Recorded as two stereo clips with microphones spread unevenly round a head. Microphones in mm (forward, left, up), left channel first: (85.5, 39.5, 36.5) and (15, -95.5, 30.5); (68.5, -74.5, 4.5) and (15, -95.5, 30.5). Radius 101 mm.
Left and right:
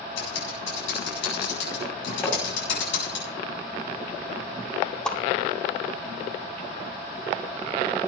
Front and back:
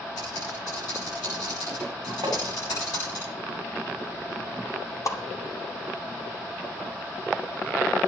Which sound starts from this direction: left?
Typing on a keyboard, at 0.2 s.